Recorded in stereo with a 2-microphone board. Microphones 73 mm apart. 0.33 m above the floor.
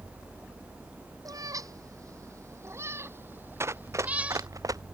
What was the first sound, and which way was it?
A cat meowing, 55° right (ahead or behind).